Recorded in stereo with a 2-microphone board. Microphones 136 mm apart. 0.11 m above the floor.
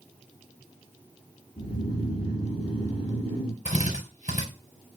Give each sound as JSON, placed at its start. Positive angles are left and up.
{"t": 1.6, "sound": "snoring", "side_deg": 50, "distance_m": 3.0}
{"t": 3.6, "sound": "a drill", "side_deg": 70, "distance_m": 4.5}